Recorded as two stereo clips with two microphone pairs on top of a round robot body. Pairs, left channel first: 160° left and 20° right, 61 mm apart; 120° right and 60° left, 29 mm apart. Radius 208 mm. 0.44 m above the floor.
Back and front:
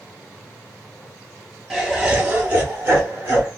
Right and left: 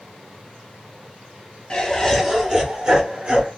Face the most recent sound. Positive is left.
turn(degrees=40)